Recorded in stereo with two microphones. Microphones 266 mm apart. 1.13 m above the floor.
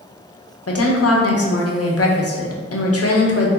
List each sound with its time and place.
0.7 s a woman speaking: 60° left (ahead or behind), 0.6 m